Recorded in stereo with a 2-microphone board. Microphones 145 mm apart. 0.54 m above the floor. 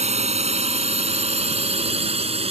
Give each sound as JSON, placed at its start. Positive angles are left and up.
{"t": 0.0, "sound": "a drone", "side_deg": -50}